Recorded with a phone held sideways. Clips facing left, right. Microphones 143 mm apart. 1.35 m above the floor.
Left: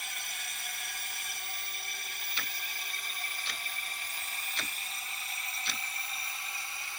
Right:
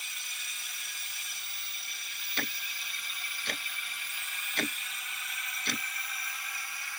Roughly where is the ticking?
Right.